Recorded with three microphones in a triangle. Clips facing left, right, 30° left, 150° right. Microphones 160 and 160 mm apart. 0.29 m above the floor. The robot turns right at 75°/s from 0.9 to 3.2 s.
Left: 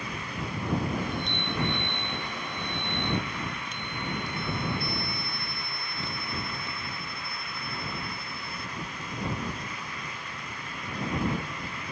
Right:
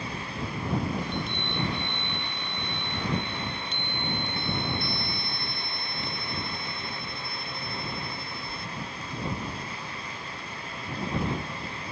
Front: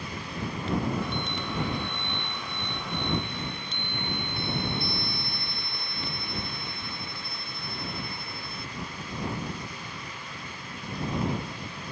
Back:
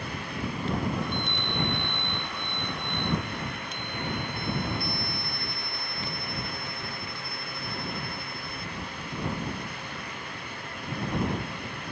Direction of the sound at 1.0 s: 165° left.